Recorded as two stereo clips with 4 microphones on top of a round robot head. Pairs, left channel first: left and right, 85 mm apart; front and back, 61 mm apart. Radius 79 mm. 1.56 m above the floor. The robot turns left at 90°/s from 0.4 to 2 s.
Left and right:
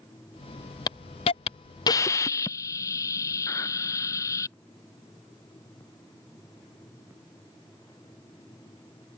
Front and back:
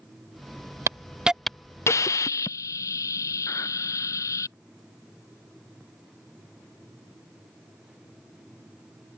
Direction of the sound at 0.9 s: 140° left.